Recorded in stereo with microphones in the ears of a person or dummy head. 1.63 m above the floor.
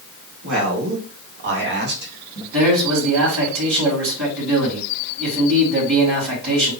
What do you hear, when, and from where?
0.4 s a man speaking: 75° right (ahead or behind), 2.5 m; by 2.4 s 35° right (ahead or behind), 1.3 m
2.5 s a man speaking: 75° right (ahead or behind), 2.5 m